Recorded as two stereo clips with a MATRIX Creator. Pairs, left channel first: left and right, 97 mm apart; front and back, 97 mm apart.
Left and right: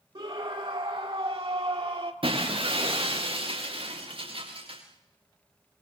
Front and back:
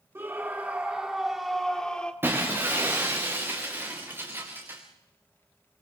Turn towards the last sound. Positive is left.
turn(degrees=-115)